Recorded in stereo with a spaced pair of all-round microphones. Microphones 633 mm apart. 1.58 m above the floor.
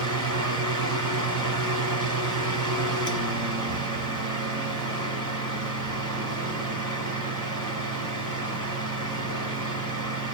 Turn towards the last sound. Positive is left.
turn(degrees=-30)  # may be behind; listen again after turning